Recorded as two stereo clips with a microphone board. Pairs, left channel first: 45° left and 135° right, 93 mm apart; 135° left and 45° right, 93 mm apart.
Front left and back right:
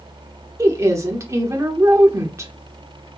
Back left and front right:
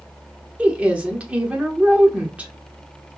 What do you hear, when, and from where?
0.6 s a woman speaking: 110° right, 1.1 m